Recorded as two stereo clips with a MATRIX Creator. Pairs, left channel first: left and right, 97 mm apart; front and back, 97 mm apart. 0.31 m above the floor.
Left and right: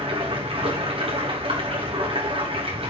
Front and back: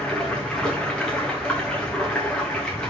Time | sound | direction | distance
0.0 | running water | 80° right | 5.5 m